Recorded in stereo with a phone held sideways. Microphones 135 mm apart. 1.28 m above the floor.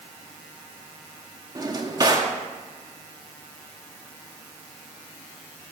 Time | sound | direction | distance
1.6 | a drawer | 30° right (ahead or behind) | 0.9 m